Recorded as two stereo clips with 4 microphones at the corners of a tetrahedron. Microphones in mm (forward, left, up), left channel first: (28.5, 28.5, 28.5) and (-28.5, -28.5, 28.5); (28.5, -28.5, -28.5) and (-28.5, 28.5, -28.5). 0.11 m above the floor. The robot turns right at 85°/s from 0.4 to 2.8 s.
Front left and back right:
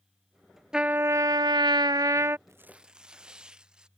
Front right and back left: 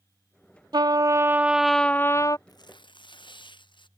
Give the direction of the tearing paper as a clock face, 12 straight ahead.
3 o'clock.